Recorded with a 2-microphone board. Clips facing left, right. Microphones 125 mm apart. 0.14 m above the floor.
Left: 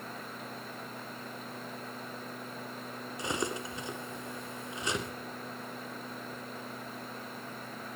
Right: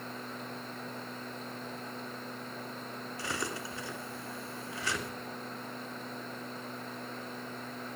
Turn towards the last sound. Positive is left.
turn(degrees=20)  # may be behind; listen again after turning